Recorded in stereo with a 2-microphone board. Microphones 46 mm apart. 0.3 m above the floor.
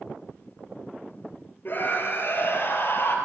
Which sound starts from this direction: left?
A scream, at 1.6 s.